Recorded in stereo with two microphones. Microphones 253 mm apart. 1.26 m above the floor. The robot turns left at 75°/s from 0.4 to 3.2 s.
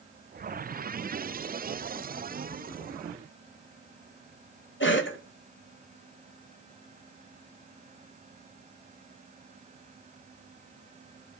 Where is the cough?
50° left (ahead or behind), 1.7 m.